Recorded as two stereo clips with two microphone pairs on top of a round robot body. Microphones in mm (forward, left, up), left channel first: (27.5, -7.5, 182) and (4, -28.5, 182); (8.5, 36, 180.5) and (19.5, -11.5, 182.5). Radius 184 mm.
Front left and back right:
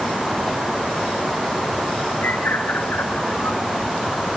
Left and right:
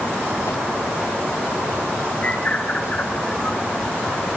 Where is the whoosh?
120° left, 3.5 m.